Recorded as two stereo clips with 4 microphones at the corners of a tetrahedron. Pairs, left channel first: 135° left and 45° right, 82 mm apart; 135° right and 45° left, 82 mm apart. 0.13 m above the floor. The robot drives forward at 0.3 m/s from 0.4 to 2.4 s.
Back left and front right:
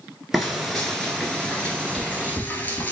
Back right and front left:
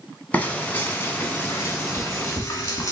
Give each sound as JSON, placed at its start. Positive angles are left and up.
{"t": 0.3, "sound": "frying", "azimuth_deg": -135, "distance_m": 1.0}